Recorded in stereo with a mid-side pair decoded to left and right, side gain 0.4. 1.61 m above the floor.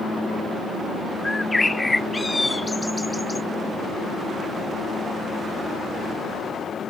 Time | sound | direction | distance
1.2 | a bird | 15° left | ?